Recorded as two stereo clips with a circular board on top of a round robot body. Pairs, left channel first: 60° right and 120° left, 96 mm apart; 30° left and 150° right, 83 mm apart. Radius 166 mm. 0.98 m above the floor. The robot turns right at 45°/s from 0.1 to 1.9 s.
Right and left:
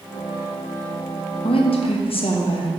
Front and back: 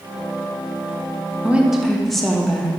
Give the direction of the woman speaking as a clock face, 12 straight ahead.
3 o'clock.